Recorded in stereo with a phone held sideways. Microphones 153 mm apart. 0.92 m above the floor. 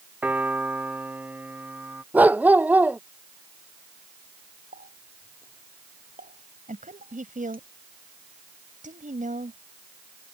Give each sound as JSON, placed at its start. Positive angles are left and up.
{"t": 0.2, "sound": "a piano", "side_deg": -10}
{"t": 2.1, "sound": "a dog barking", "side_deg": -10}
{"t": 4.7, "sound": "a running tap", "side_deg": -70}
{"t": 6.7, "sound": "a woman speaking", "side_deg": -60}